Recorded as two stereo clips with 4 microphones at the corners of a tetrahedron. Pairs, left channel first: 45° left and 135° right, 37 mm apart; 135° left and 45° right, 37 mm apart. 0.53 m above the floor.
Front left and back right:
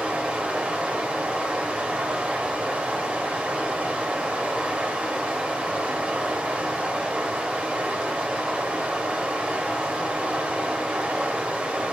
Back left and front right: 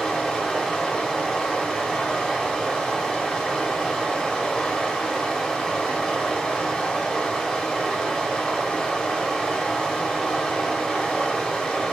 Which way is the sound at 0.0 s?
170° right.